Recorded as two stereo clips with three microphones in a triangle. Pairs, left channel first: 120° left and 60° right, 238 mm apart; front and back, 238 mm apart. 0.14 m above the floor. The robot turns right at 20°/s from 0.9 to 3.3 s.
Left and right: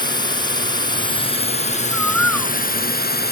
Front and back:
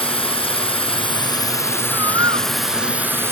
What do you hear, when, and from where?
0.0 s a drone: 55° left; by 3.3 s 105° left
1.9 s a bird: 30° left; by 2.5 s 40° left